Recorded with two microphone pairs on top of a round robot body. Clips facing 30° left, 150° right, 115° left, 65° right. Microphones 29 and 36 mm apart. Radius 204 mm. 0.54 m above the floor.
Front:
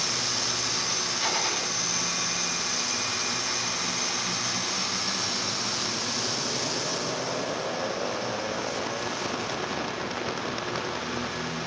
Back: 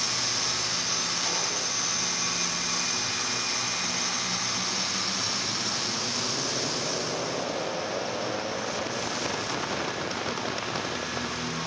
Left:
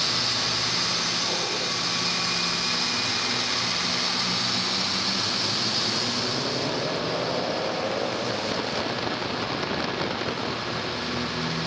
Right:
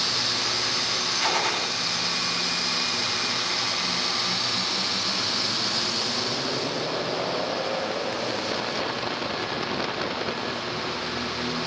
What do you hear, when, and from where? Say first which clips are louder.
1.2 s a gunshot: front 2 dB, right 3 dB; 40° right, 3.5 m